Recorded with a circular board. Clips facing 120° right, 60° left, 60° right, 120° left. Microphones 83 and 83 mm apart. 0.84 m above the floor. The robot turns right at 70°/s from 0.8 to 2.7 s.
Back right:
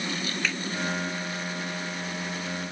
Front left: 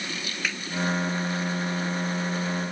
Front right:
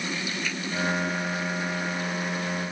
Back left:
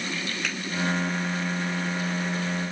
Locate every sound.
0.4 s a finger snap: 140° left, 5 m